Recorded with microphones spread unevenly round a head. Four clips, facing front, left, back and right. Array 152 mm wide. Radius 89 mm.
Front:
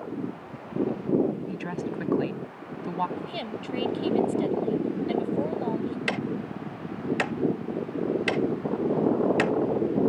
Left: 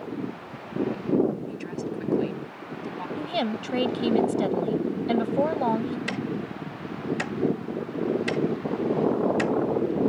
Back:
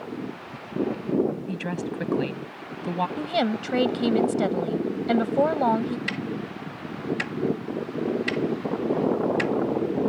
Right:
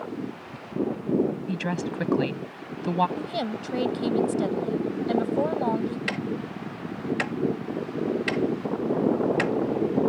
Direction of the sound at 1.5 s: 120° right.